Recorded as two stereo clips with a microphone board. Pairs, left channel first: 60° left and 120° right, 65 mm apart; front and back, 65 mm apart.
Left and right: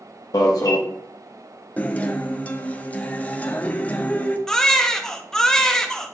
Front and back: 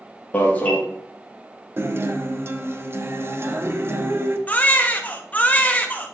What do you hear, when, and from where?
0.3 s an alarm: 65° left, 1.3 m
1.8 s a guitar: 130° left, 0.7 m
4.5 s a baby crying: 10° right, 0.8 m